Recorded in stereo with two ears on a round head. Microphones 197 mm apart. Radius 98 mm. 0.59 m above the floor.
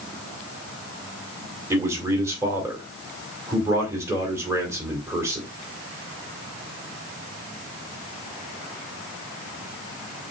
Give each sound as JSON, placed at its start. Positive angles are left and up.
{"t": 1.7, "sound": "a man speaking", "side_deg": -15, "distance_m": 2.0}